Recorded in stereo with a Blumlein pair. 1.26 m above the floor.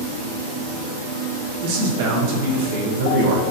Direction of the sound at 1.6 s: 50° right.